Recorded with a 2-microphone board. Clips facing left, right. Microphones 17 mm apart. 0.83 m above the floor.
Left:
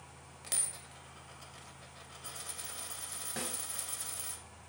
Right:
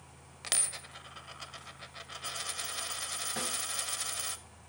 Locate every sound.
0.4 s a dropped coin: 45° right (ahead or behind), 0.5 m
3.4 s a snare drum: 5° left (ahead or behind), 3.5 m